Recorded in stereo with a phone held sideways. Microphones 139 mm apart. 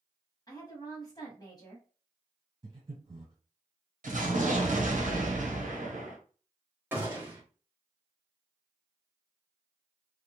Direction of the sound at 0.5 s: 30° left (ahead or behind).